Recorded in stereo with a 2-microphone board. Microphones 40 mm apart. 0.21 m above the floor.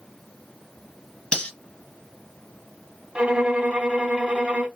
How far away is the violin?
About 1.2 m.